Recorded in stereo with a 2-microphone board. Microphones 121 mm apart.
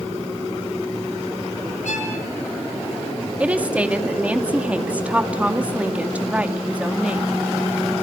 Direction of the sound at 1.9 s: 80° left.